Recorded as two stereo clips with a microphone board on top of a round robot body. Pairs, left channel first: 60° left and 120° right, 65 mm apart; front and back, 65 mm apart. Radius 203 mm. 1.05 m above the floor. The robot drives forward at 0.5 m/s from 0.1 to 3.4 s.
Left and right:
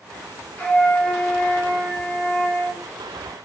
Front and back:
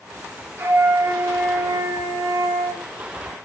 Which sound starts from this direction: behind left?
A flute, at 0.6 s.